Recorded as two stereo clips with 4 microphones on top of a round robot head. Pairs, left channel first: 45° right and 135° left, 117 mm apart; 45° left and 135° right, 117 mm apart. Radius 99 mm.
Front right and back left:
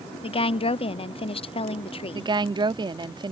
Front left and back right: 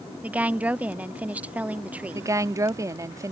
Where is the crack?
I don't hear a crack.